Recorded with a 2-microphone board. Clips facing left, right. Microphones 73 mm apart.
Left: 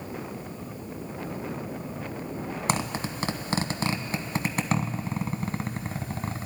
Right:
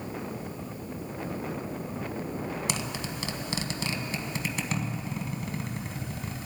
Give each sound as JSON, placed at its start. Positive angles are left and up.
{"t": 2.7, "sound": "a zipper", "side_deg": 45, "distance_m": 1.1}